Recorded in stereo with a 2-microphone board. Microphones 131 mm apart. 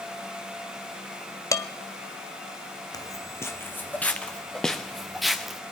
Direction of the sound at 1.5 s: 25° left (ahead or behind).